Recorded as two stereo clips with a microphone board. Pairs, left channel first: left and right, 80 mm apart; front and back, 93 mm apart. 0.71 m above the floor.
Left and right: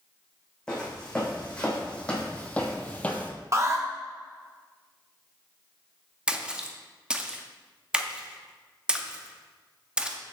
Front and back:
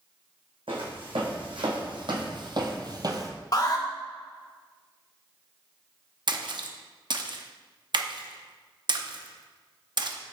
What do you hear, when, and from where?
0.7 s footsteps: 170° left, 2.5 m; by 3.3 s 150° left, 0.9 m
3.5 s an alarm: 40° right, 1.0 m
6.3 s a splash: 165° right, 0.6 m